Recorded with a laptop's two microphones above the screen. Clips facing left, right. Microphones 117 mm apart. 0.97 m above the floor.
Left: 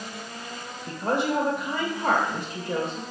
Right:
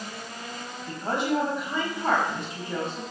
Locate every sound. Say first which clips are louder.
0.9 s a woman speaking: left 2 dB; 85° left, 3 m